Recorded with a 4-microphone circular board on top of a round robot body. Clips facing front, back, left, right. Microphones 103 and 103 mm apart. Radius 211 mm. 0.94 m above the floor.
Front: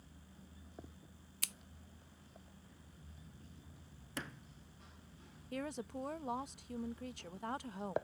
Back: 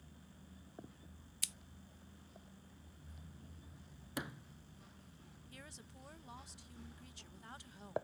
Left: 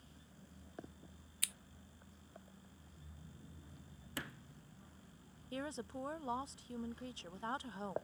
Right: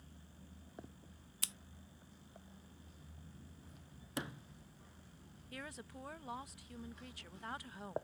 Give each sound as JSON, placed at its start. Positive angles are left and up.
{"t": 1.4, "sound": "scissors", "azimuth_deg": -30}
{"t": 4.2, "sound": "a sliding door", "azimuth_deg": -120}
{"t": 5.5, "sound": "a woman speaking", "azimuth_deg": 30}